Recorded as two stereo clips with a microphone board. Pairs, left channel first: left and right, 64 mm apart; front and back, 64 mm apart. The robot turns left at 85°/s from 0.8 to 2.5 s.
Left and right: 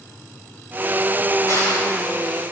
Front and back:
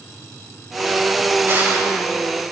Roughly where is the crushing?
Behind left.